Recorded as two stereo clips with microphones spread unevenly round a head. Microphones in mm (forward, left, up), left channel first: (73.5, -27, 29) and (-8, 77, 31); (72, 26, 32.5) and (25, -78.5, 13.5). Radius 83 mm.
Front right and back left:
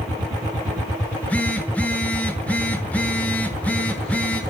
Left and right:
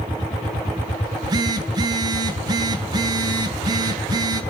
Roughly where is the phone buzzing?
Behind right.